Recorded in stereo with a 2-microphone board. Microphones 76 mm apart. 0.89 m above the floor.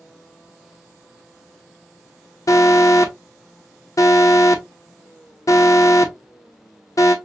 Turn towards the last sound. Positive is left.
turn(degrees=50)  # may be behind; listen again after turning